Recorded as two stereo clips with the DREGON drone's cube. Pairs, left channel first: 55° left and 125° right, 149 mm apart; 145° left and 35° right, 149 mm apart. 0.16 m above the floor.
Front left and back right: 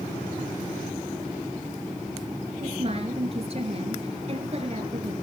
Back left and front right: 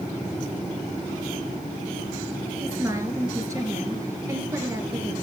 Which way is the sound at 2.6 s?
95° right.